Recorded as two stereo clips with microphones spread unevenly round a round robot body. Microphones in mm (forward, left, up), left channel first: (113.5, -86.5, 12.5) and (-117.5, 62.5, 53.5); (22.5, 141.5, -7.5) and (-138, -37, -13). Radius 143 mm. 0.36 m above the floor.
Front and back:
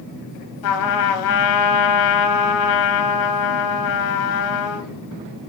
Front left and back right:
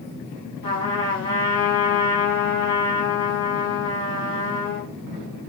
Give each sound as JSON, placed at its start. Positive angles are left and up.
{"t": 0.6, "sound": "a trumpet", "azimuth_deg": -30, "distance_m": 0.6}